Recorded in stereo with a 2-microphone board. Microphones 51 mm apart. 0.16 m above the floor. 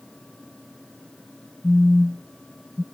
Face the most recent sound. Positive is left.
turn(degrees=10)  # may be behind; listen again after turning